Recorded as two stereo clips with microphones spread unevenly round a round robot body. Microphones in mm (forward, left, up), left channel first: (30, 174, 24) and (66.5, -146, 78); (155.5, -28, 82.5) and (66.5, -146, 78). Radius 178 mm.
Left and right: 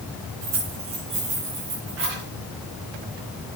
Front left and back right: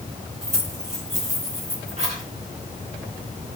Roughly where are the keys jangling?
Right.